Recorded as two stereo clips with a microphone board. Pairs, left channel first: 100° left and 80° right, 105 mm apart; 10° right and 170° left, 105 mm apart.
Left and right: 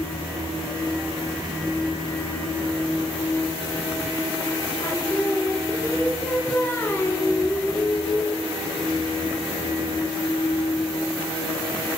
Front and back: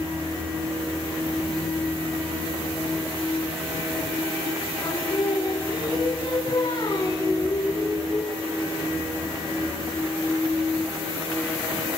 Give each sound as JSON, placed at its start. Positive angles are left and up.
{"t": 4.8, "sound": "singing", "azimuth_deg": 35, "distance_m": 3.0}